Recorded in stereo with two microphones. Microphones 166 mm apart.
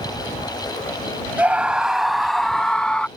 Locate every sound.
1.4 s a scream: 10° right (ahead or behind); by 3.1 s 5° left (ahead or behind)